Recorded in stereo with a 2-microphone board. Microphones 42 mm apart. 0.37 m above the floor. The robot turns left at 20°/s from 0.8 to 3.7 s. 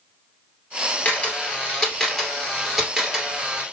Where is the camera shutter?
35° left, 1.8 m; by 3.6 s 20° right, 1.8 m.